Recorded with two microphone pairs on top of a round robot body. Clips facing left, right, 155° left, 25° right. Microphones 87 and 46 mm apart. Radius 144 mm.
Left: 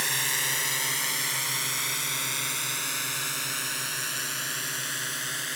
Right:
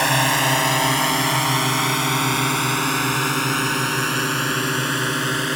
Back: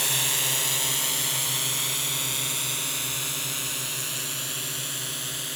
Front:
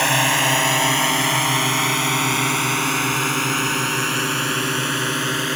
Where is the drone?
60° right.